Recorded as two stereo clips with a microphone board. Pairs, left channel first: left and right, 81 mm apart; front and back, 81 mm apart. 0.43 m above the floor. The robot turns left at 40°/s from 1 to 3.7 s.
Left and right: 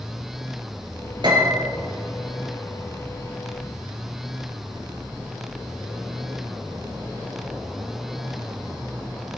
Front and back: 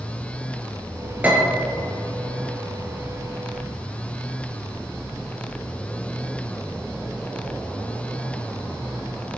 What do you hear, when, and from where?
1.2 s a piano: 110° right, 4 m; by 1.7 s 130° right, 4 m